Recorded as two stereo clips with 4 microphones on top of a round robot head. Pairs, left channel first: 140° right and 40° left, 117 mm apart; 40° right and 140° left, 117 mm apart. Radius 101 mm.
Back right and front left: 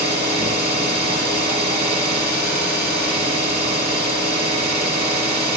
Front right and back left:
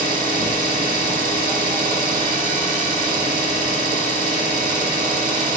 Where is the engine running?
85° left, 4.5 m.